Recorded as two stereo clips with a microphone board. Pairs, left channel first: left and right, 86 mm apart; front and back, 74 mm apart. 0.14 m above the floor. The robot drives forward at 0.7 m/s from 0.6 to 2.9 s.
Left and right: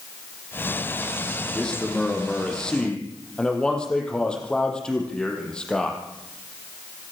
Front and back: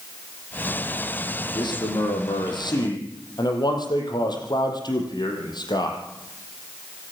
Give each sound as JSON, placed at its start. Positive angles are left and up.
{"t": 1.6, "sound": "a man speaking", "azimuth_deg": 10, "distance_m": 6.5}